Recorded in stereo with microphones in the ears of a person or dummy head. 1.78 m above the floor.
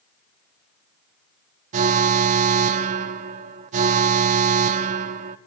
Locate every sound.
1.7 s an alarm: 50° right (ahead or behind), 0.7 m